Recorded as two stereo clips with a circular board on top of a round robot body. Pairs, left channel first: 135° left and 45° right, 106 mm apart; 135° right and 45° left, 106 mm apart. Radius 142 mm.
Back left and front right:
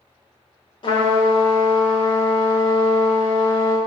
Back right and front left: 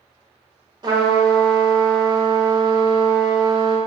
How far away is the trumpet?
About 1.1 m.